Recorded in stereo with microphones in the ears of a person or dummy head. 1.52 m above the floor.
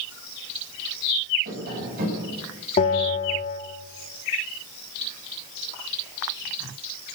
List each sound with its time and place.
1.4 s tapping: 55° right (ahead or behind), 10 m
2.8 s a bell: 35° left (ahead or behind), 3 m